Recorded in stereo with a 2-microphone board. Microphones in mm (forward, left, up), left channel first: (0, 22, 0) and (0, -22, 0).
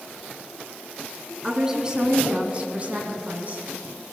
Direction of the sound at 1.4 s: 15° right (ahead or behind).